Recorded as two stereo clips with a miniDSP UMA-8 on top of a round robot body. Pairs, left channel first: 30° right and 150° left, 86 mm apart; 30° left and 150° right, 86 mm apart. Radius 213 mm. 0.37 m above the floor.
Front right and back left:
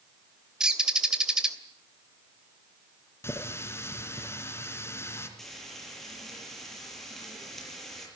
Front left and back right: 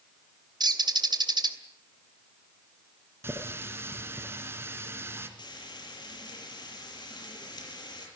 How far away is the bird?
About 2.5 m.